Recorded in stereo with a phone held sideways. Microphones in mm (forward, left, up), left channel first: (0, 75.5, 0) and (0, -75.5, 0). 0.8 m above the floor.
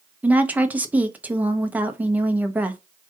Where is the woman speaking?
10° right (ahead or behind), 0.7 m.